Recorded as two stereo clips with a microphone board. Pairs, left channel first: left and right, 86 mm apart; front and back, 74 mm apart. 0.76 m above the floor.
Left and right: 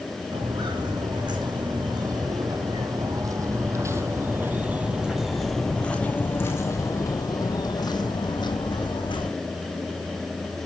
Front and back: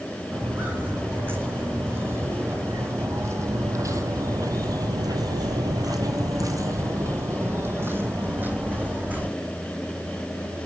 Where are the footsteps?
115° right, 3.5 m; by 9.3 s 110° left, 3 m.